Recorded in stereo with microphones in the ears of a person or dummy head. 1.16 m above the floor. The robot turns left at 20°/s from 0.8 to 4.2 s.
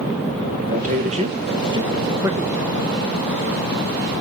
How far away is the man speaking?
About 1.5 m.